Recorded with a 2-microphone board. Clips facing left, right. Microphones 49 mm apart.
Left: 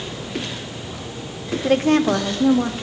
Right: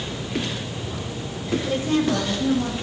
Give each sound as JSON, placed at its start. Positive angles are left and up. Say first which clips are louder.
{"t": 1.6, "sound": "a woman speaking", "louder": "left 7 dB", "side_deg": 55, "distance_m": 1.0}